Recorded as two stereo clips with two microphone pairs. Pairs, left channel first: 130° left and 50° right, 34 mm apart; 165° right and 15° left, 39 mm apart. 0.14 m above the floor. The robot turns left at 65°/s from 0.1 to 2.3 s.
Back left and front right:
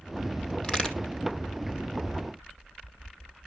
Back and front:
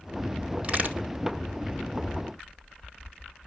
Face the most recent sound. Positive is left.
turn(degrees=-35)